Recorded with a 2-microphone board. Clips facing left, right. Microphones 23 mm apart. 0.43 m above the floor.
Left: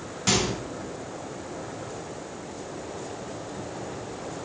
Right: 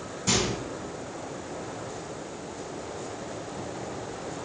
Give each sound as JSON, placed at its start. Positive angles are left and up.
{"t": 0.3, "sound": "a microwave", "side_deg": 50, "distance_m": 1.9}